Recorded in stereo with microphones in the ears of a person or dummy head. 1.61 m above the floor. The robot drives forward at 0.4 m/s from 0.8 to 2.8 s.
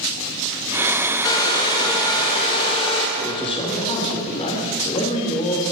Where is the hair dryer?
25° left (ahead or behind), 3.5 m; by 3.1 s 30° left (ahead or behind), 3 m.